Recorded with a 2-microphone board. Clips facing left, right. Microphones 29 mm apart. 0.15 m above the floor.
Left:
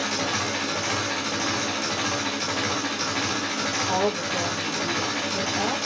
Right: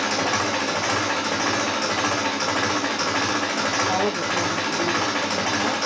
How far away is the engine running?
About 2.5 m.